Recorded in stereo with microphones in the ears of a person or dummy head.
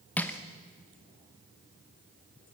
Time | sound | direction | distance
0.2 | crushing | 5° left (ahead or behind) | 1.0 m